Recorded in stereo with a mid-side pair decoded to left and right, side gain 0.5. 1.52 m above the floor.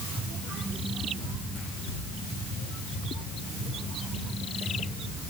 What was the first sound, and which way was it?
Only background noise.